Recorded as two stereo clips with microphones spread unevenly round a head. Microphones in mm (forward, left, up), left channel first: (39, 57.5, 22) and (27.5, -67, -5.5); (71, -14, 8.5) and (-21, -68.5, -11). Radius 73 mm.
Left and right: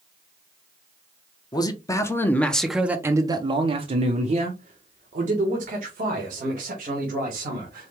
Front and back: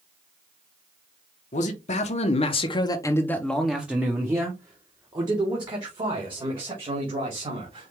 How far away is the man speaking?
About 1.0 m.